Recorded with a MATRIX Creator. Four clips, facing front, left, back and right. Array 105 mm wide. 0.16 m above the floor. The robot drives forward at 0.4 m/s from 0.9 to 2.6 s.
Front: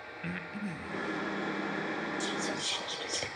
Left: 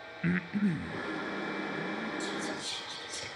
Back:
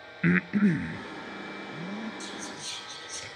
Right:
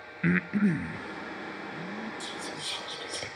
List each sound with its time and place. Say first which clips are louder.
0.2 s breathing: right 5 dB, back 15 dB; 155° right, 0.5 m; by 2.1 s 165° right, 0.9 m
2.2 s whispering: left 3 dB, front 5 dB; 25° right, 3.5 m; by 3.3 s 30° right, 3.5 m